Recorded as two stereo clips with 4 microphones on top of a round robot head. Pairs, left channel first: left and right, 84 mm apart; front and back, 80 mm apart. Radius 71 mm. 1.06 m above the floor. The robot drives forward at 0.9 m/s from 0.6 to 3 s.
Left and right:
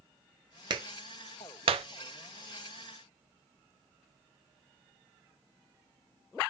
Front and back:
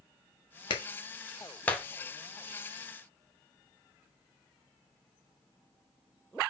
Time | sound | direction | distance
0.7 | a clap | 40° right | 1.5 m